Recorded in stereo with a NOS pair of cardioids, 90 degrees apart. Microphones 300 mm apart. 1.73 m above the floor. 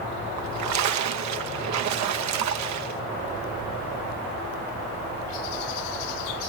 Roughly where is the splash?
Right.